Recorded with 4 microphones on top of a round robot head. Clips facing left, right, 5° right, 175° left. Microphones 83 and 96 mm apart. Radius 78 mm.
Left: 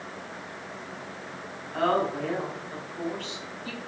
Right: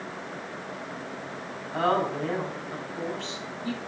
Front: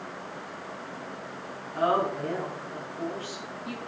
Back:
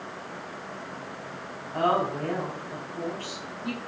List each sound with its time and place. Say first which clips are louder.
1.7 s a woman speaking: even, back 1 dB; 150° right, 5 m